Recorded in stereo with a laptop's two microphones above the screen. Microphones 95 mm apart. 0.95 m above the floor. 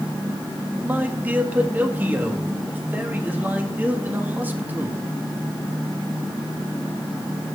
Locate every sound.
0.8 s a man speaking: 20° right (ahead or behind), 1.6 m